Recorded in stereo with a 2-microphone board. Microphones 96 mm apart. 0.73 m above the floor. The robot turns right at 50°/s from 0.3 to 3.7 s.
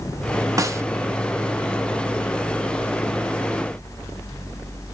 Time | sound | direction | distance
0.6 | a snare drum | 35° right (ahead or behind) | 0.5 m